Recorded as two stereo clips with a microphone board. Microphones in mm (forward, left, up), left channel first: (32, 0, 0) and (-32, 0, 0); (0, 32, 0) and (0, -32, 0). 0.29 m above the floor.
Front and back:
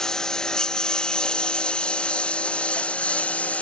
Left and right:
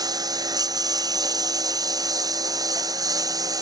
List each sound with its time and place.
0.0 s a lawn mower: 80° right; by 3.6 s 70° right